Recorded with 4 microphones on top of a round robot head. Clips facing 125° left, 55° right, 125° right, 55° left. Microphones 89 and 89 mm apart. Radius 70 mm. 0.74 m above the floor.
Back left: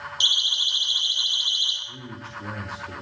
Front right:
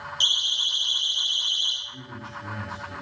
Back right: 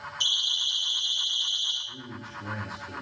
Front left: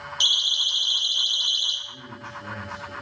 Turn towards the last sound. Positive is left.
turn(degrees=155)